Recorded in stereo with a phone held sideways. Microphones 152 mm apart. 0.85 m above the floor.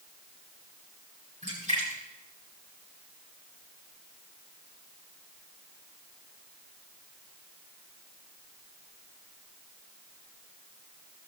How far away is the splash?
About 8 m.